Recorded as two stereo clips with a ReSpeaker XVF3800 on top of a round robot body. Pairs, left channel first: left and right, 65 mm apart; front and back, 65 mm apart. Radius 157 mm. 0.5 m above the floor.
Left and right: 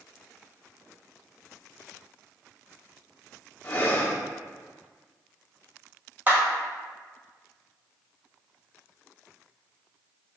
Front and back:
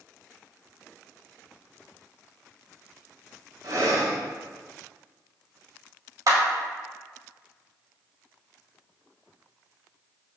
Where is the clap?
150° right, 2.5 m.